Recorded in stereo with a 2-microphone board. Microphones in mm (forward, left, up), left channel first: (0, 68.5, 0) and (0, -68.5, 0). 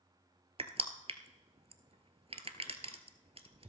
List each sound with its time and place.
0.6 s crushing: 45° right (ahead or behind), 1.0 m